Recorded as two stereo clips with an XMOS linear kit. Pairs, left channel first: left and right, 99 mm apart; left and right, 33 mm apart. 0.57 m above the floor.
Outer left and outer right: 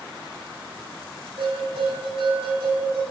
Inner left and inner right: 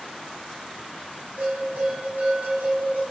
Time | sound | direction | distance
1.4 | a bell | 70° right (ahead or behind) | 7 m